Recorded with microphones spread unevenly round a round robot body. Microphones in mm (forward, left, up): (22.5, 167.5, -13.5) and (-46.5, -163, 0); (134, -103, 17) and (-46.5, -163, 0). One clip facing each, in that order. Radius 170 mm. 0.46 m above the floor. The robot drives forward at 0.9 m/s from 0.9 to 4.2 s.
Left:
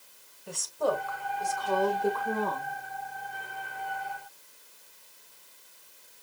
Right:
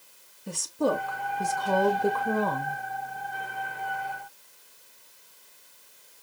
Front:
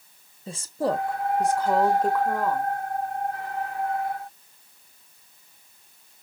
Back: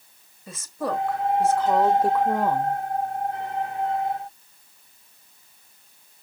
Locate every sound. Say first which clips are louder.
0.5 s a woman speaking: right 3 dB, front 3 dB; 45° right, 1.8 m; by 2.8 s 115° right, 1.4 m